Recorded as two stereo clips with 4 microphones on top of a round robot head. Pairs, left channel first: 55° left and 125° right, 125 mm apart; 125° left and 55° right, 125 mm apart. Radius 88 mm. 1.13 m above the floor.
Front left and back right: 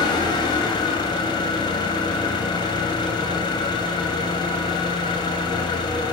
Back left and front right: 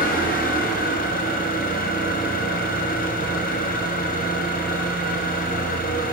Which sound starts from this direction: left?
An engine running, at 0.0 s.